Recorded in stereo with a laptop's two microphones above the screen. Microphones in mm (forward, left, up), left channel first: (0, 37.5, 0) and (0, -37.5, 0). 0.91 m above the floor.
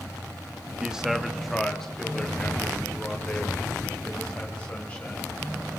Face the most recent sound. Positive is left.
turn(degrees=20)  # may be behind; listen again after turning